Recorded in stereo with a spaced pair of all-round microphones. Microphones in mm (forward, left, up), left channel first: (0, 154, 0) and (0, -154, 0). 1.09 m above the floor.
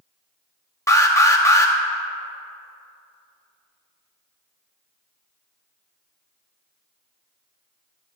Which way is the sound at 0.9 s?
10° left (ahead or behind).